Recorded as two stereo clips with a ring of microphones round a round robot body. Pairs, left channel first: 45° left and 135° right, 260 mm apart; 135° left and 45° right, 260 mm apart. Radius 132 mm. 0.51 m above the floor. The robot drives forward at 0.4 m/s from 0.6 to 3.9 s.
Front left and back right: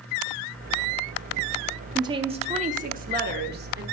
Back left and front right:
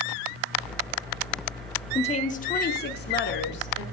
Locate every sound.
1.9 s a woman speaking: 170° left, 0.7 m; by 3.8 s 175° left, 1.2 m